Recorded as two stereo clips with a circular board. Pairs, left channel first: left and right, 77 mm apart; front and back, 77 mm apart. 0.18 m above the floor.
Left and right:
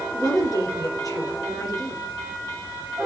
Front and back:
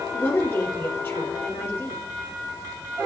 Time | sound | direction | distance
0.1 | a woman speaking | 55° left | 4 m